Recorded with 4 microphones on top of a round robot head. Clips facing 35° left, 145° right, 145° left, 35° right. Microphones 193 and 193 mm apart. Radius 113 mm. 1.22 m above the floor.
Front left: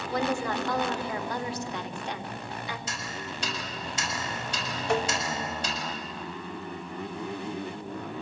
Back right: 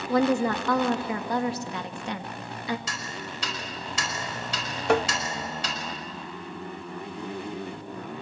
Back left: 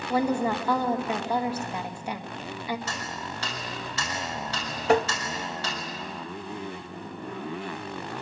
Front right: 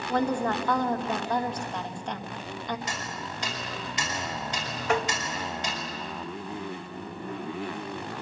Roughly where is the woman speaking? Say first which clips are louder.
Back right 7 dB, back left 2 dB; behind right.